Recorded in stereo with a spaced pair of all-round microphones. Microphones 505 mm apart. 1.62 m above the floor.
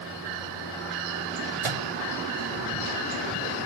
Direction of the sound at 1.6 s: 70° right (ahead or behind).